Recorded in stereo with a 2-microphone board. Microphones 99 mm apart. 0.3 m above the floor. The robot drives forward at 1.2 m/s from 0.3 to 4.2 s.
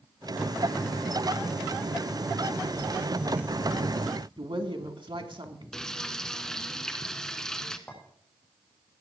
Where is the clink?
15° left (ahead or behind), 9 m.